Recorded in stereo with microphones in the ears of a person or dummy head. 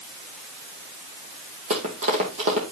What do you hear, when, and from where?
1.7 s running footsteps: 25° right (ahead or behind), 1.8 m